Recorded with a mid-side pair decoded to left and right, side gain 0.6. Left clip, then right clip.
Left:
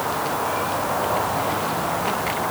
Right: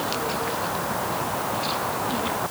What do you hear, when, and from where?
Only background noise.